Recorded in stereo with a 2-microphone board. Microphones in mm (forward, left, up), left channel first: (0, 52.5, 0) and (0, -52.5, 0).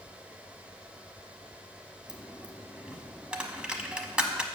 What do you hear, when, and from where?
2.1 s a dropped coin: 10° right (ahead or behind), 0.8 m